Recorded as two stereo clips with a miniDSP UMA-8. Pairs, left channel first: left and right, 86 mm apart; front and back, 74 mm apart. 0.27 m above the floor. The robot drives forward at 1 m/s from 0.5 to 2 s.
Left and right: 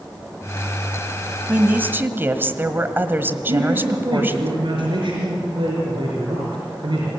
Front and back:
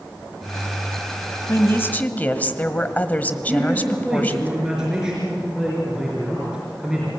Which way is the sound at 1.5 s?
30° right.